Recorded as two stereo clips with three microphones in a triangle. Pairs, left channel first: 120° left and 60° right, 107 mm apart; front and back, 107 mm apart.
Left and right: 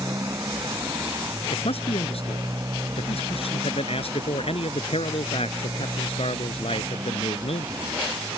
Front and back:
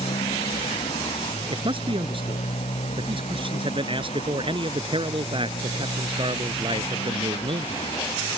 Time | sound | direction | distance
0.0 | a motorcycle | straight ahead | ?
1.5 | a man speaking | 145° left | ?